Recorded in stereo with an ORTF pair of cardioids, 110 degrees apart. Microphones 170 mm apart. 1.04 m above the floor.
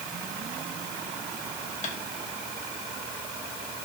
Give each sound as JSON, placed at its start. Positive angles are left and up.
{"t": 1.8, "sound": "tapping", "azimuth_deg": 40, "distance_m": 2.5}